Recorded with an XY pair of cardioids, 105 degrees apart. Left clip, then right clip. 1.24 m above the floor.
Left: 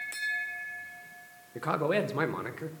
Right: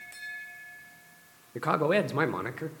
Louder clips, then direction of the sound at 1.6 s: Right 3 dB; 20° right.